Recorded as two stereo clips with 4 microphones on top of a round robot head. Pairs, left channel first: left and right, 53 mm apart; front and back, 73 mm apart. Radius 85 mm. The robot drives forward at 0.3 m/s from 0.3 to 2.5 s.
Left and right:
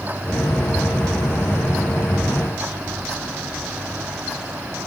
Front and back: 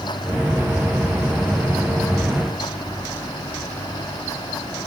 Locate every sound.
Only background noise.